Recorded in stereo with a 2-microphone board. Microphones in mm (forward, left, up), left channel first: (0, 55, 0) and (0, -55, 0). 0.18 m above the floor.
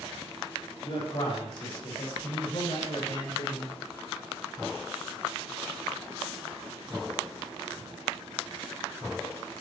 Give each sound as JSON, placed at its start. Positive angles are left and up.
{"t": 0.8, "sound": "a man speaking", "side_deg": 60, "distance_m": 6.0}